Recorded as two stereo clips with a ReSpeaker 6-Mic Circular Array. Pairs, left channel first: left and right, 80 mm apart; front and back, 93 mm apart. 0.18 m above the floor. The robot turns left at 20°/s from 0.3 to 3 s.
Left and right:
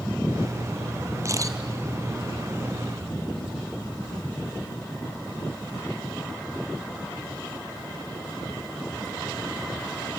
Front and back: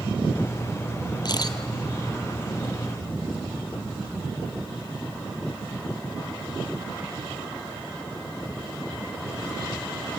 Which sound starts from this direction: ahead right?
A camera shutter, at 1.2 s.